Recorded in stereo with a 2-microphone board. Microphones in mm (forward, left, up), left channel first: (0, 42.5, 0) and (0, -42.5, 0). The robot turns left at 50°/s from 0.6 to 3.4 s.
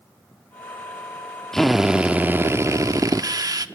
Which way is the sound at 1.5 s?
5° left.